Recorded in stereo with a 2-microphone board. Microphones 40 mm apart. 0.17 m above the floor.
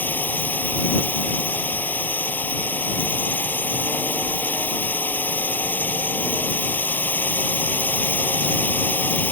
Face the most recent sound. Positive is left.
turn(degrees=45)  # may be behind; listen again after turning